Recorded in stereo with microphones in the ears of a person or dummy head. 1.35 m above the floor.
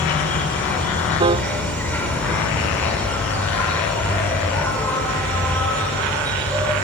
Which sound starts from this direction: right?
A piano, at 1.2 s.